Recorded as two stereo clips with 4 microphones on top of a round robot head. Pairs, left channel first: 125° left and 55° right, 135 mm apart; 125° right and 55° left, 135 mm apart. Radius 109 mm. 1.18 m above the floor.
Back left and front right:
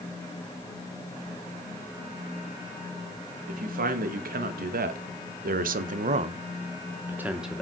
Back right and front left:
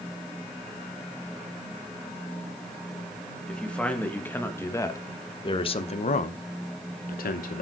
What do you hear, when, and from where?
3.5 s a man speaking: 40° right, 2.0 m; by 7.6 s 145° right, 1.0 m